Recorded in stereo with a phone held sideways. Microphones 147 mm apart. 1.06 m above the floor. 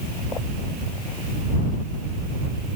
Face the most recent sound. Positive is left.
No sound to turn to.